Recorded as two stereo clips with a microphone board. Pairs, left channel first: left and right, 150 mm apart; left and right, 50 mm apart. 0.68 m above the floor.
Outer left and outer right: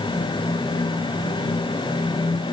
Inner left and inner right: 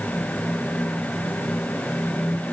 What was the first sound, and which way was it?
Only background noise.